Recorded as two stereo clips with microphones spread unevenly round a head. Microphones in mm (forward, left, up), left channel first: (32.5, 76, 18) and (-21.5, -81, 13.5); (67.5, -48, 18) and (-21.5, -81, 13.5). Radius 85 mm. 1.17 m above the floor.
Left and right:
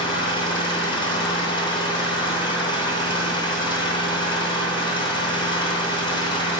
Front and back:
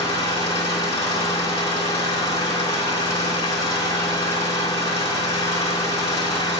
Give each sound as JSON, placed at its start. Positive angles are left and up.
{"t": 0.0, "sound": "an engine running", "azimuth_deg": 10, "distance_m": 3.0}